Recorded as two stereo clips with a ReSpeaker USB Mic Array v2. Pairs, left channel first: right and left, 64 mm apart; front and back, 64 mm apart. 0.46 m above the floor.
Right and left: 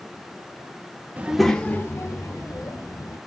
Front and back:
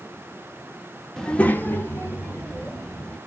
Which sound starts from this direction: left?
A child speaking, at 1.2 s.